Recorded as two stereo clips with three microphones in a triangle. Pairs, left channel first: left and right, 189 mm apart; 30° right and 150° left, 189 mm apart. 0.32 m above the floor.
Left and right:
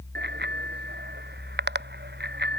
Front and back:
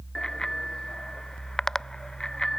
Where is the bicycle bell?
115° right.